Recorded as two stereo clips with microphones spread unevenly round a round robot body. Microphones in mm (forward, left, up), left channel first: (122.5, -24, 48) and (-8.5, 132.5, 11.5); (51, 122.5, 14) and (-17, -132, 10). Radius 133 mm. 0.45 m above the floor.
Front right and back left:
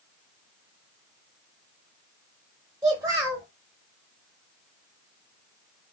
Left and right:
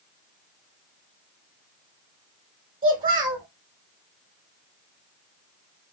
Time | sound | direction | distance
2.8 | a child speaking | 170° right | 0.7 m